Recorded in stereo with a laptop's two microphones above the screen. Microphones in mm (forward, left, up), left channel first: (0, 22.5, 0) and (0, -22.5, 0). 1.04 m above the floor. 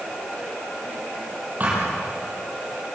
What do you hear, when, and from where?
1.6 s a thud: 40° right (ahead or behind), 8 m